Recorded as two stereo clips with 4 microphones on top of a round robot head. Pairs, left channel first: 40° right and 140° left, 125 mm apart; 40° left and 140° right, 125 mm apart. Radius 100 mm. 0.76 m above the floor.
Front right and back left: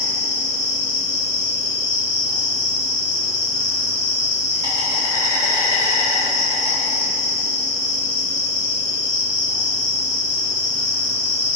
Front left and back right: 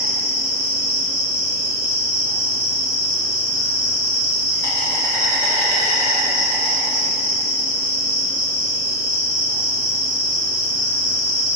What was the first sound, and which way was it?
An insect, 10° right.